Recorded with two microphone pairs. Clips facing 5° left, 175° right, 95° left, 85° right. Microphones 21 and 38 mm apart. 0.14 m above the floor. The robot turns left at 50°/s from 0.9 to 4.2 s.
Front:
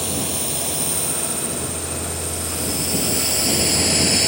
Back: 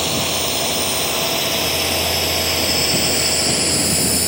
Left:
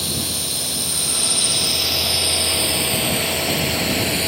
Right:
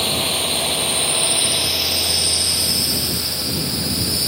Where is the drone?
125° right; by 4.3 s 75° left.